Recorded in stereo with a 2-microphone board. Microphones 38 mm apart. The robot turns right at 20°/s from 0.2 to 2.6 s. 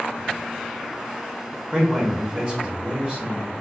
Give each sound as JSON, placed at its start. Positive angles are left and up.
{"t": 1.7, "sound": "a man speaking", "side_deg": -20, "distance_m": 1.0}